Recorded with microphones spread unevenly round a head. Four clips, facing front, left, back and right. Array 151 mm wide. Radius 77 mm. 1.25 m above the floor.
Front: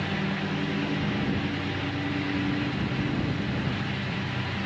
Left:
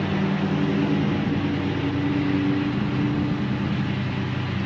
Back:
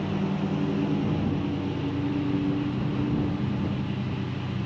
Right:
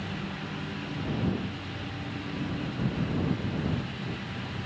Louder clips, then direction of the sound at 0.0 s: Left 13 dB, back 2 dB; 100° left.